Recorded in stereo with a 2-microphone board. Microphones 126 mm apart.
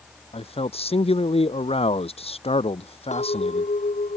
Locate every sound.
0.3 s a man speaking: 50° left (ahead or behind)
3.1 s a clink: 65° left (ahead or behind)